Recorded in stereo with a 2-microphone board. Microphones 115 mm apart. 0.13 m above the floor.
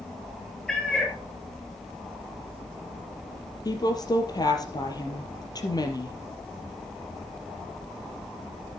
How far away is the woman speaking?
About 3 m.